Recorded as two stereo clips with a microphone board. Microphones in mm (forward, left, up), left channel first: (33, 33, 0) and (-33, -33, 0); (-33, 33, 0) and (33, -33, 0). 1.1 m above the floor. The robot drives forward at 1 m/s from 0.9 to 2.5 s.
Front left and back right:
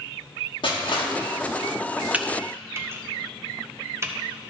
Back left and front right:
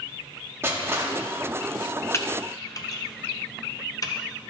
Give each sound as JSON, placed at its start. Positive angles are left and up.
{"t": 0.6, "sound": "crushing", "azimuth_deg": 20, "distance_m": 1.5}
{"t": 2.1, "sound": "typing on a keyboard", "azimuth_deg": 165, "distance_m": 0.7}